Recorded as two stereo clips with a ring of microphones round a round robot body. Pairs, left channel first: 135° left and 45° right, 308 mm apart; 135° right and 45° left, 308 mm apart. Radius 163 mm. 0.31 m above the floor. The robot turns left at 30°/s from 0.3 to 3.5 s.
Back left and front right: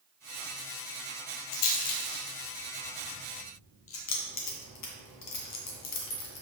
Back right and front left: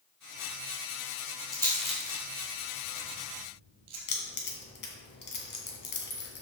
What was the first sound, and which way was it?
A rattle, 145° left.